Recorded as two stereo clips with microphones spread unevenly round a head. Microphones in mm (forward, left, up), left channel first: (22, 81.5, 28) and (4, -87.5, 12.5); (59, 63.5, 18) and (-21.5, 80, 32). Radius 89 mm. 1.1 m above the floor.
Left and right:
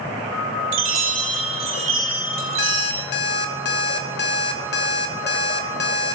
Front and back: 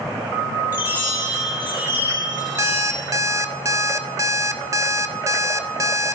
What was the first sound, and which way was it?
A chime, 115° right.